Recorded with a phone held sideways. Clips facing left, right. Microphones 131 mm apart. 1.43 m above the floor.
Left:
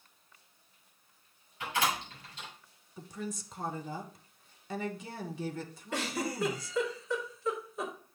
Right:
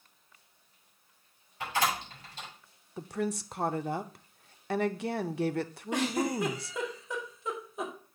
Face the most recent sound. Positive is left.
turn(degrees=-15)  # may be behind; listen again after turning